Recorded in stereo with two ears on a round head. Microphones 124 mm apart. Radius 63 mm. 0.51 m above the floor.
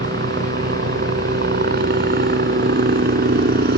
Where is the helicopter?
70° right (ahead or behind); by 3.8 s 75° right (ahead or behind).